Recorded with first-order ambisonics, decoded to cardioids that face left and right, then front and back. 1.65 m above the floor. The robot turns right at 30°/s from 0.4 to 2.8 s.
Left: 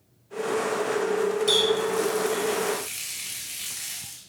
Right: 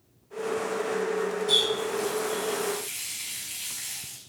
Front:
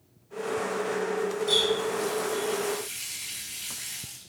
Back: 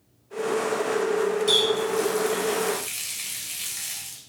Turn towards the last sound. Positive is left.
turn(degrees=155)